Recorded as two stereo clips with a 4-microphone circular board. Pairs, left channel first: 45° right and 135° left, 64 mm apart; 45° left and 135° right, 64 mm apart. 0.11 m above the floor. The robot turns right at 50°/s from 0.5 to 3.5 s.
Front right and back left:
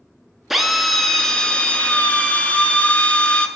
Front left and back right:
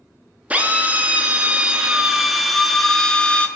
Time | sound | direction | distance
0.5 | a drill | 145° right | 0.5 m